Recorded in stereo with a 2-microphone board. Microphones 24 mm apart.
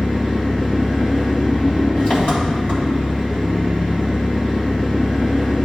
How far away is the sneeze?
I don't hear a sneeze.